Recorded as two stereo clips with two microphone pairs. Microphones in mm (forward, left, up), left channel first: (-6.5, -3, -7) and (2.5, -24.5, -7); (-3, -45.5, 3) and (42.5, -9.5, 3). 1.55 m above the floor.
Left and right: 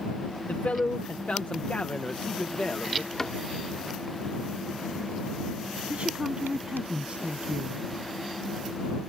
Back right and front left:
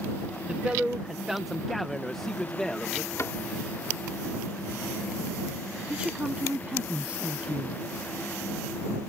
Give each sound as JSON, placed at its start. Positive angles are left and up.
{"t": 0.5, "sound": "a man speaking", "azimuth_deg": 105}
{"t": 3.2, "sound": "a cupboard door", "azimuth_deg": 175}
{"t": 5.9, "sound": "a woman speaking", "azimuth_deg": -35}